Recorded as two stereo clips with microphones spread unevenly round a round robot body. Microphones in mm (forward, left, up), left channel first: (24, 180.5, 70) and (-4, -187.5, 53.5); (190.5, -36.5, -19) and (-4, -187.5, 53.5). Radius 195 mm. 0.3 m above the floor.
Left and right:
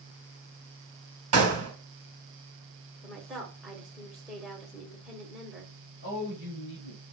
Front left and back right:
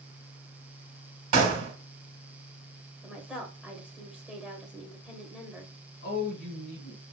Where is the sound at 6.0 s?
35° left, 1.8 m.